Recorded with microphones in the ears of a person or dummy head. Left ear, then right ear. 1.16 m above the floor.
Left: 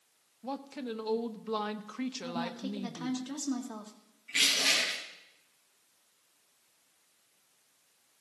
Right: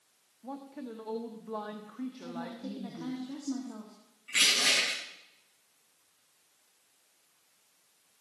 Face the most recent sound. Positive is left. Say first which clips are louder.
# right 1 dB
turn(degrees=-40)  # may be behind; listen again after turning